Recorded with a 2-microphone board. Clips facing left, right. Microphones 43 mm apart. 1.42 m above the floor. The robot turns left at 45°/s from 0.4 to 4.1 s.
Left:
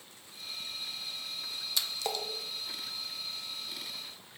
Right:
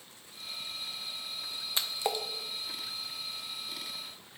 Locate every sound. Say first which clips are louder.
1.8 s a splash: right 3 dB; 30° right (ahead or behind), 0.7 m; by 2.2 s 10° right (ahead or behind), 0.7 m